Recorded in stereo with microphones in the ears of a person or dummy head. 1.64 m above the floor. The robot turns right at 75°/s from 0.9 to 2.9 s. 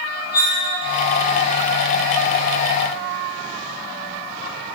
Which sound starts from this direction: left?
Cutlery clinking, at 0.3 s.